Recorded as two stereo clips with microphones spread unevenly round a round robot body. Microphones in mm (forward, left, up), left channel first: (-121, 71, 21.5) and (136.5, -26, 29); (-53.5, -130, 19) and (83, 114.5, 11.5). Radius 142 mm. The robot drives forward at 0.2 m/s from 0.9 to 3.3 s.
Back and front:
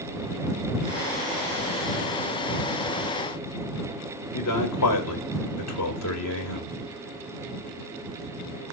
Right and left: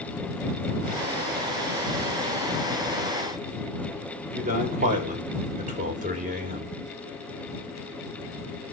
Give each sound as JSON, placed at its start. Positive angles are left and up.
{"t": 4.3, "sound": "a man speaking", "azimuth_deg": 125, "distance_m": 3.0}